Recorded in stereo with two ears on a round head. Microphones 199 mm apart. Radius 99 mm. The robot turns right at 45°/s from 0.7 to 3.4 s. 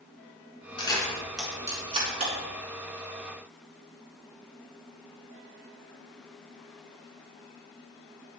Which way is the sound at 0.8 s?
25° left (ahead or behind).